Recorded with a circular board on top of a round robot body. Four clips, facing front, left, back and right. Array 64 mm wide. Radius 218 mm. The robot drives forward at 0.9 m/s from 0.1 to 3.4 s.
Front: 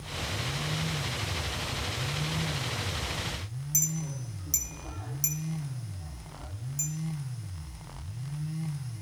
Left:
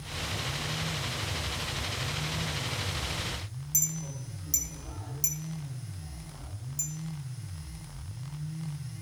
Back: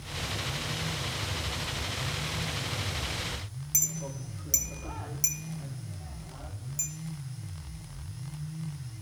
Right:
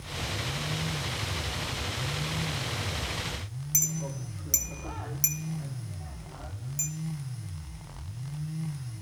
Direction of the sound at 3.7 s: 125° right.